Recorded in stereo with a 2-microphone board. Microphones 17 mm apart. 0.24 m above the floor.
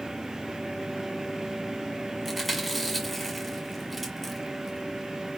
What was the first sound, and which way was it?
Chewing, centre (ahead or behind).